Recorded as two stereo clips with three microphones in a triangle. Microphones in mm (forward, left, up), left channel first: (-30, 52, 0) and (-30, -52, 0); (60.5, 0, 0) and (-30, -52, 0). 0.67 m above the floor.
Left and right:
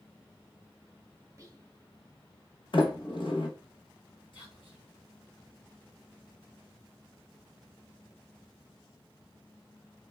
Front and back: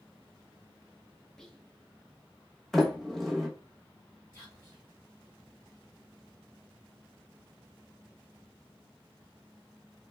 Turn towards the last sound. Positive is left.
turn(degrees=100)